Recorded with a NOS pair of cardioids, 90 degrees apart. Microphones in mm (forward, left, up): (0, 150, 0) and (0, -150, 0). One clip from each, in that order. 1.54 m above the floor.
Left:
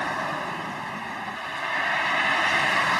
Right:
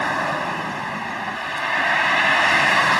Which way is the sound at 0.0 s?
45° right.